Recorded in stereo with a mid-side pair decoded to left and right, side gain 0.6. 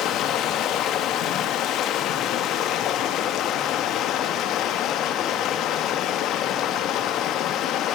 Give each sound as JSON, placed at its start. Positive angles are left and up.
{"t": 0.0, "sound": "running water", "azimuth_deg": 60, "distance_m": 2.0}